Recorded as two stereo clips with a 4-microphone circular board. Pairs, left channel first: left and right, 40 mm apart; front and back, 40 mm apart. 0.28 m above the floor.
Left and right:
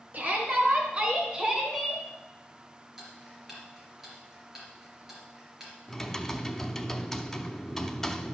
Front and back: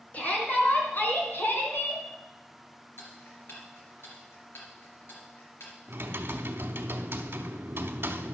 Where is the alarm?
No alarm in this recording.